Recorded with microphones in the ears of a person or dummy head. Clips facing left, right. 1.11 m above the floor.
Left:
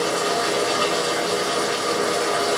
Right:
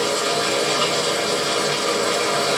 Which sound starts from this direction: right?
Running water, at 0.0 s.